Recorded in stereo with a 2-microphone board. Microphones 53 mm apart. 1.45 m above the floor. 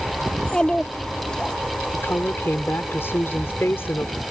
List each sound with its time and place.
0.3 s a child speaking: 15° left (ahead or behind)
1.9 s a woman speaking: 55° left (ahead or behind)